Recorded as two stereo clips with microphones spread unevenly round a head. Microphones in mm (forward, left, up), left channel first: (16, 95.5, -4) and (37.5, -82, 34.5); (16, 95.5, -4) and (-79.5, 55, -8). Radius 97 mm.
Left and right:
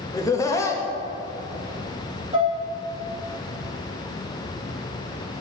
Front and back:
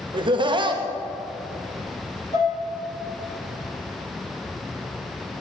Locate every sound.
0.1 s laughter: 165° left, 1.0 m
2.3 s dishes clattering: 25° right, 2 m